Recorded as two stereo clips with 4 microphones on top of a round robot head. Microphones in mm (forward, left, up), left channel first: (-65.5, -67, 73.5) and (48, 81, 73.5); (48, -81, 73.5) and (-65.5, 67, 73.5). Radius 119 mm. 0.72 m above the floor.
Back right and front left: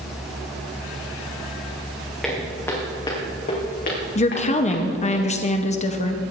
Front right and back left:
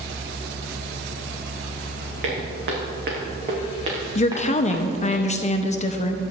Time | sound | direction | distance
2.2 | footsteps | 145° left | 3.5 m
4.2 | a woman speaking | 90° right | 1.0 m